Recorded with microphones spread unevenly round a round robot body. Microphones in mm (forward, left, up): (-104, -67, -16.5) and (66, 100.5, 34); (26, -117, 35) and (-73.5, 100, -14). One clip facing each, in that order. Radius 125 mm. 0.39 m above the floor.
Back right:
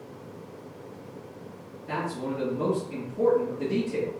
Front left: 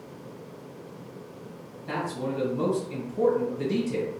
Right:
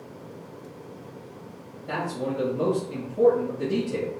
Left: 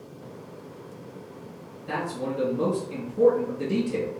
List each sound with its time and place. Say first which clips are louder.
1.9 s a man speaking: front left 1 dB, right 1 dB; 45° left, 1.3 m